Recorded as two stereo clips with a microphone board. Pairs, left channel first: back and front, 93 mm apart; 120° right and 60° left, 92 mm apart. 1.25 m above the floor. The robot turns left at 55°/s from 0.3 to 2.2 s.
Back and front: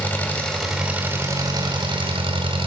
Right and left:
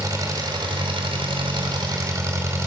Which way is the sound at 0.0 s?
110° left.